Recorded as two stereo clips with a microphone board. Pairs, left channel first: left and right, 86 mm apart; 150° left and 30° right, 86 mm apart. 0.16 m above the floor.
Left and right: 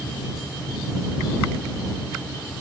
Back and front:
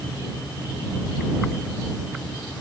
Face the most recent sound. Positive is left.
No sound to turn to.